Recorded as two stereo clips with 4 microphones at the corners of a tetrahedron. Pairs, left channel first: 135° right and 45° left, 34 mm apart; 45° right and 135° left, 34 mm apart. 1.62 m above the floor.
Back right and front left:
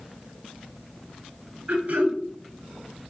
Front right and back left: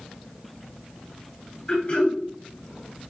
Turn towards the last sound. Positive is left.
turn(degrees=5)